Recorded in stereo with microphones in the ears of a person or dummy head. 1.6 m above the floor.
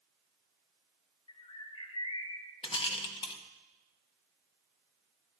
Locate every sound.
1.3 s a bird: 25° left (ahead or behind), 0.6 m
2.6 s a rattle: 25° left (ahead or behind), 0.9 m